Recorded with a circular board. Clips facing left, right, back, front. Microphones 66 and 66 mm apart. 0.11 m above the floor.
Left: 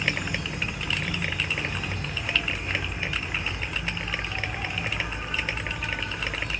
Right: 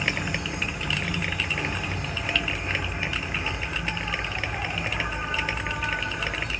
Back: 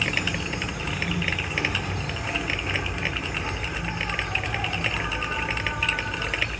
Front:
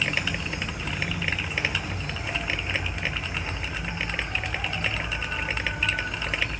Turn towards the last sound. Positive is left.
turn(degrees=-160)